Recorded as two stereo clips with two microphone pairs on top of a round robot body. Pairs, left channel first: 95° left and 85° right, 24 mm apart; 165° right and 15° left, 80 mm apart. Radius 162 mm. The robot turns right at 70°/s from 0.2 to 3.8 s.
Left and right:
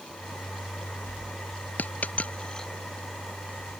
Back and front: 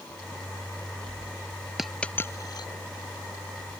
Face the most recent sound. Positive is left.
turn(degrees=-120)